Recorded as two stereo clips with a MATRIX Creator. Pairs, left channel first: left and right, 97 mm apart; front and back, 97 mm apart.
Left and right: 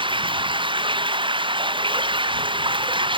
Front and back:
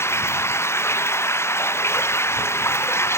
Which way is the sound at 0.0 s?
60° right.